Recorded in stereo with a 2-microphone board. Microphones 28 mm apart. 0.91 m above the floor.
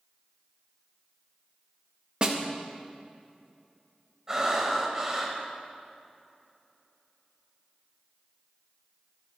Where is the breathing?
25° right (ahead or behind), 2 m.